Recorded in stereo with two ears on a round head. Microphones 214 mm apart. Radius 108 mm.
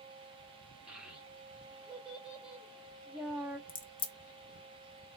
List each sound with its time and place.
0.9 s a child speaking: 5° right (ahead or behind), 0.9 m
3.7 s a crack: 20° left (ahead or behind), 0.6 m